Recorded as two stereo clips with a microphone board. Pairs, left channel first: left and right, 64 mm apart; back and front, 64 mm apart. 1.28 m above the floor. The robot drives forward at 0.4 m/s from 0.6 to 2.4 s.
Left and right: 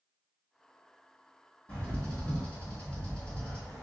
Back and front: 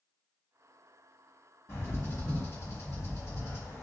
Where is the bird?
155° left, 1.6 m; by 3.8 s 160° left, 1.8 m.